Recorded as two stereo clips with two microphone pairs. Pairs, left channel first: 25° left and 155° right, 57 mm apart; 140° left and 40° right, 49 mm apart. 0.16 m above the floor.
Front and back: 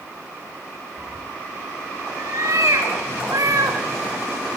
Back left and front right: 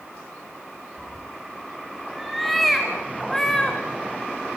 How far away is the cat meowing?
About 3.5 m.